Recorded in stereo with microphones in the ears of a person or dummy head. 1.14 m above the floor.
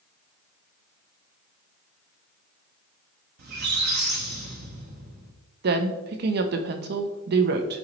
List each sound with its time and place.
3.4 s a squeak: 50° right (ahead or behind), 1.1 m
5.6 s a woman speaking: 55° right (ahead or behind), 0.7 m